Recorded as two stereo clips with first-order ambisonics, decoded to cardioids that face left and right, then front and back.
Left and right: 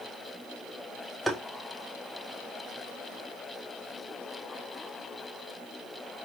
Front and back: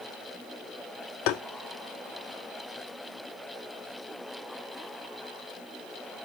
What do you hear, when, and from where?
1.3 s tapping: 5° right, 0.6 m